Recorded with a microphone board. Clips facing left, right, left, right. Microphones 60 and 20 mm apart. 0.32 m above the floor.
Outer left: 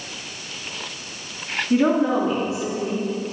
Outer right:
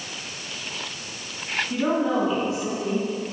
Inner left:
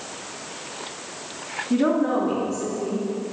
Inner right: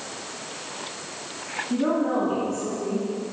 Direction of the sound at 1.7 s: 20° left (ahead or behind).